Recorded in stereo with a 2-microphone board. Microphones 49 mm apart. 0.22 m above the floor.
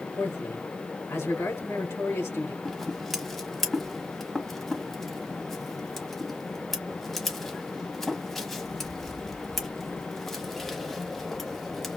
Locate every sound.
0.1 s a man speaking: 70° left (ahead or behind), 3 m
2.6 s scissors: 5° left (ahead or behind), 1.1 m